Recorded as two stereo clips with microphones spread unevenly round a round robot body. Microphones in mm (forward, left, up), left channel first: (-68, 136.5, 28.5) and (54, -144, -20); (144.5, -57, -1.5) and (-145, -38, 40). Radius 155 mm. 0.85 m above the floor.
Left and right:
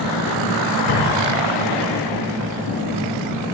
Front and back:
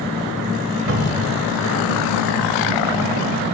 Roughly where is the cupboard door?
Behind left.